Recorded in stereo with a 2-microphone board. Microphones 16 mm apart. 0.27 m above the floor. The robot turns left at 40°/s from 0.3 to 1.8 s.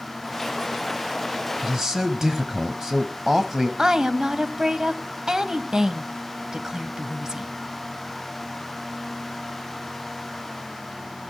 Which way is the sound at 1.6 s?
30° right (ahead or behind).